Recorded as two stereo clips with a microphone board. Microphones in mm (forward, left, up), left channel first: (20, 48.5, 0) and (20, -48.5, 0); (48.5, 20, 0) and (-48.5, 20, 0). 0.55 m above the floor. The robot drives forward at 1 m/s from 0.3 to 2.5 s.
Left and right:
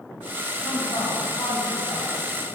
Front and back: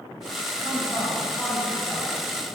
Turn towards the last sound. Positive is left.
turn(degrees=100)